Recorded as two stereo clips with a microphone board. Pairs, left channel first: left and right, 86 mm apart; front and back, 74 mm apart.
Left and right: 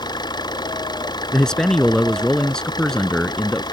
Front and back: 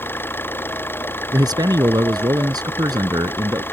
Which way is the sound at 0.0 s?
60° left.